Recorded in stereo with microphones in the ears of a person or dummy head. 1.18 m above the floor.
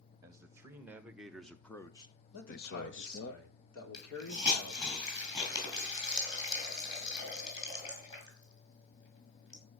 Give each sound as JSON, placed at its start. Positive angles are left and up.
{"t": 0.2, "sound": "a man speaking", "side_deg": -20, "distance_m": 2.0}
{"t": 2.3, "sound": "a man speaking", "side_deg": 70, "distance_m": 3.5}
{"t": 3.9, "sound": "a hiss", "side_deg": 20, "distance_m": 5.5}